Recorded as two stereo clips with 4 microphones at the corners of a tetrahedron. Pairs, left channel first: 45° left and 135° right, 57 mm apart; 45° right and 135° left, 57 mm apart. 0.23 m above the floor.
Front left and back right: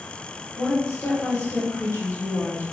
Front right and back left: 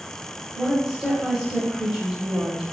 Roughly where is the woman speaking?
Ahead left.